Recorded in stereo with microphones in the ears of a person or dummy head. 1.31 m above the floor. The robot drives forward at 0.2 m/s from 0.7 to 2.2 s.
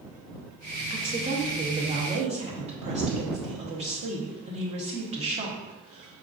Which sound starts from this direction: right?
A woman speaking, at 0.9 s.